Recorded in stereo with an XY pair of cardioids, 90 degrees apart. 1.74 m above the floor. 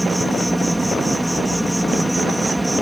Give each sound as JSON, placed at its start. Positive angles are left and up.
{"t": 0.0, "sound": "an insect", "azimuth_deg": -5}